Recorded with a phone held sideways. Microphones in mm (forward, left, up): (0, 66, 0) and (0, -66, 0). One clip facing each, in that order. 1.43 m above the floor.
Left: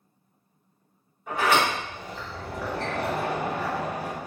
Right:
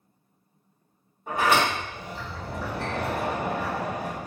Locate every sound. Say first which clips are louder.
1.3 s a sliding door: even; 40° right (ahead or behind), 1.4 m